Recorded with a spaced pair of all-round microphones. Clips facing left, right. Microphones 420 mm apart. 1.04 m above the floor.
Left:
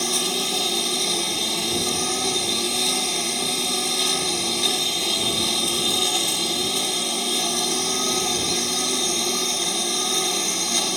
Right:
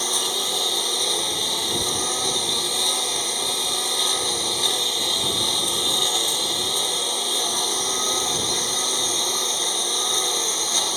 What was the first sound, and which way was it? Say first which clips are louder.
A lawn mower: left 3 dB; 45° left (ahead or behind).